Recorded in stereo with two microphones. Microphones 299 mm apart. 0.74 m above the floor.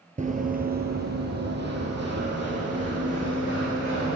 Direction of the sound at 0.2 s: 25° right (ahead or behind).